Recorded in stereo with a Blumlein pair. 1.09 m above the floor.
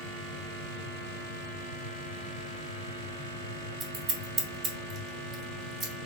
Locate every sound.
0.0 s a fan: 60° right, 1.7 m
3.8 s scissors: 30° right, 2 m